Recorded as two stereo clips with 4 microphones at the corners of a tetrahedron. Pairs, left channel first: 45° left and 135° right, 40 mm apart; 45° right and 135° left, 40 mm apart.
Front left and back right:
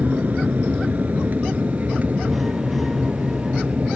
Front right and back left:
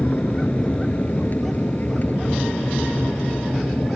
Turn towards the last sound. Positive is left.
turn(degrees=-85)